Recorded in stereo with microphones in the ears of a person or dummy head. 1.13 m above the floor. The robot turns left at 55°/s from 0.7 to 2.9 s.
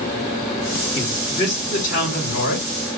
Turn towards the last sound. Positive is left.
turn(degrees=55)